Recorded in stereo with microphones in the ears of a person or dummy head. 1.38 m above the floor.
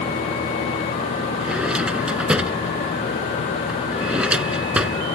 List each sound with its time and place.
1.4 s a drawer: 10° right (ahead or behind)